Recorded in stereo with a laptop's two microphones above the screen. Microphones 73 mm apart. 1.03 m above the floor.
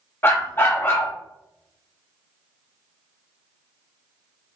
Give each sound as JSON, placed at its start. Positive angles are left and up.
{"t": 0.2, "sound": "a dog barking", "side_deg": 30, "distance_m": 0.7}